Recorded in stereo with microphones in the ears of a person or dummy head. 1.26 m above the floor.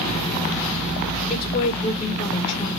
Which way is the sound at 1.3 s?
30° left (ahead or behind).